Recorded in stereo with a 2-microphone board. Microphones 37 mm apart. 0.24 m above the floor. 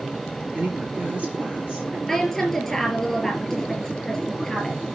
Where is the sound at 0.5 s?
35° right (ahead or behind), 3.5 m; by 2.0 s 25° right (ahead or behind), 4 m.